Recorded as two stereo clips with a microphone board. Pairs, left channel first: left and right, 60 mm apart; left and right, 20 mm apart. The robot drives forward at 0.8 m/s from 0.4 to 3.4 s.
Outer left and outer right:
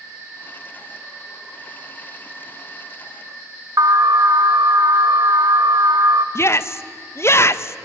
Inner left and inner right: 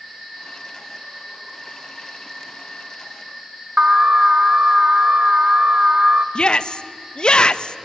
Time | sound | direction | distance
3.8 | an alarm | 75° right (ahead or behind) | 1.0 m
6.3 | a shout | 45° left (ahead or behind) | 0.8 m